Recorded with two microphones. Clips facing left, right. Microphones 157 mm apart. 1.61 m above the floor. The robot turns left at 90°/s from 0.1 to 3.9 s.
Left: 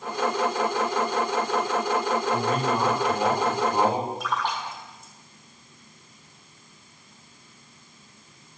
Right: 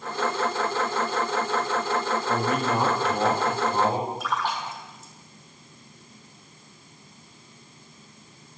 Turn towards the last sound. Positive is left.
turn(degrees=0)  # may be behind; listen again after turning